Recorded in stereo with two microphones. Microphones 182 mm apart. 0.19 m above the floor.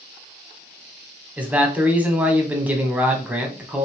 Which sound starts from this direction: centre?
A man speaking, at 1.4 s.